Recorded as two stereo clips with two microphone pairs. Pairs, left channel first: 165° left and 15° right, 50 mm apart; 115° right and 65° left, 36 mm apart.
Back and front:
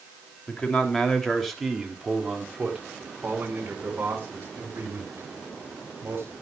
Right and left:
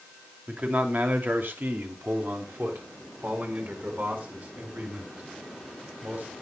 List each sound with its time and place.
0.5 s a man speaking: 105° left, 2.5 m; by 6.3 s 30° left, 6.5 m